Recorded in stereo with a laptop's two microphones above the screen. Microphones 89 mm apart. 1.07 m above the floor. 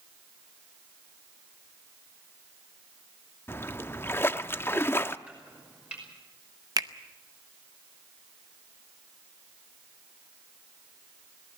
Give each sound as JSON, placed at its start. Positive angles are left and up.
{"t": 3.5, "sound": "a splash", "side_deg": 25, "distance_m": 0.6}
{"t": 5.3, "sound": "chopping", "side_deg": -15, "distance_m": 5.5}
{"t": 6.8, "sound": "a finger snap", "side_deg": -45, "distance_m": 0.7}